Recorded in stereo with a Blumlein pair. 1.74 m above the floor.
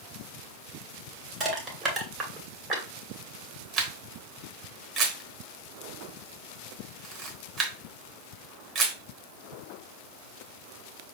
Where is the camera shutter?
20° right, 1.3 m.